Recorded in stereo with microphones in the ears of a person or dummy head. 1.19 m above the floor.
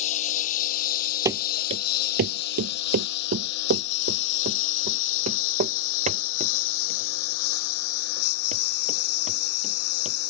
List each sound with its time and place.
0.0 s a lawn mower: 40° left (ahead or behind); by 10.3 s 85° left
1.2 s running footsteps: 15° right (ahead or behind); by 10.2 s 35° right (ahead or behind)